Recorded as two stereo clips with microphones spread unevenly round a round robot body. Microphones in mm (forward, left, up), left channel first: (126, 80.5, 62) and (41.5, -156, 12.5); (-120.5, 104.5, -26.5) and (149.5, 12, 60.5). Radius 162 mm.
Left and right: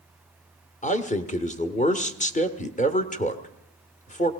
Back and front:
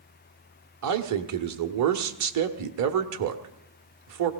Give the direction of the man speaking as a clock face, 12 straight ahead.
12 o'clock.